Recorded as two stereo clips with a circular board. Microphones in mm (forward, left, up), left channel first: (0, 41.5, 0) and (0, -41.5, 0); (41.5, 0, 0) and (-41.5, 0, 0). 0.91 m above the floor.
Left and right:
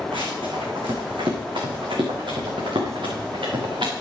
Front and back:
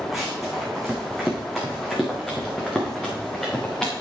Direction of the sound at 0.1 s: 90° right.